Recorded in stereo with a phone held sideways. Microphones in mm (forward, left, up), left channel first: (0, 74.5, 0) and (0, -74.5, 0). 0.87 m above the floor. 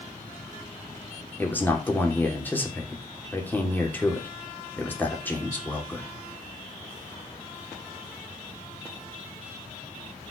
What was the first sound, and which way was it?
A man speaking, 15° left (ahead or behind).